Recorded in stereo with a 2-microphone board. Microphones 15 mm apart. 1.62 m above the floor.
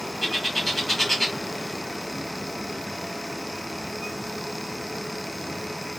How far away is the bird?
About 1.9 m.